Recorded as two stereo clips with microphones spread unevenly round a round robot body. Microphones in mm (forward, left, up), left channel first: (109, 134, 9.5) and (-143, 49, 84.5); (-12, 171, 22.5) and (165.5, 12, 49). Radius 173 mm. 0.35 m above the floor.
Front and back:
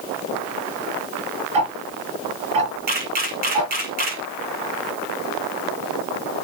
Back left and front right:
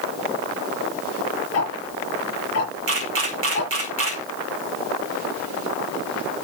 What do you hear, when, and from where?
1.5 s ticking: 175° right, 6 m
2.9 s a camera shutter: 95° right, 2.5 m